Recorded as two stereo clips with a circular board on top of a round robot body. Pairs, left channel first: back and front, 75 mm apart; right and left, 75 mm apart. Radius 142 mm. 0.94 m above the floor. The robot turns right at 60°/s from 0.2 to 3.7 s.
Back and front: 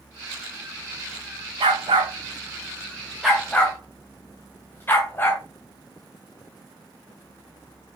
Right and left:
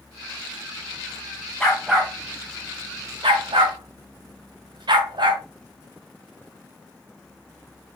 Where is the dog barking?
10° right, 2.5 m; by 5.4 s 115° left, 2.5 m.